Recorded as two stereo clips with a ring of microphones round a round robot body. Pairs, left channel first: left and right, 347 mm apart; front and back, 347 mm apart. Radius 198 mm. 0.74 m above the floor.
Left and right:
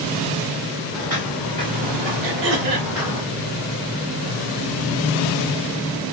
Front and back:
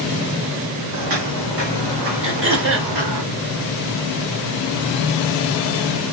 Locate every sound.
0.9 s footsteps: 160° right, 2.5 m; by 3.2 s 155° right, 3.5 m
2.2 s throat clearing: 125° right, 1.8 m